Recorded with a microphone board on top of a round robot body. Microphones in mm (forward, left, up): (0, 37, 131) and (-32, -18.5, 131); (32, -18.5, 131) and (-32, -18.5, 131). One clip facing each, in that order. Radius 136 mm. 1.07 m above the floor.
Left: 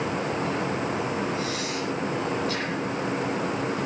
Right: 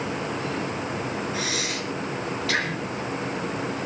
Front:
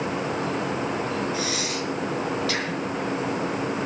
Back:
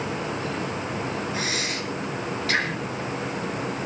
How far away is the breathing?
About 3.5 m.